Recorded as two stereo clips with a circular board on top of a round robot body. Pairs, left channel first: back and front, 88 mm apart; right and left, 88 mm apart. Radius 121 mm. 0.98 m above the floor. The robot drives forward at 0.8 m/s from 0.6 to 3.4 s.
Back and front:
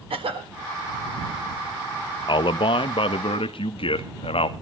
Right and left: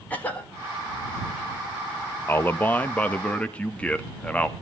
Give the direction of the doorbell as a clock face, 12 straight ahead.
No doorbell in this recording.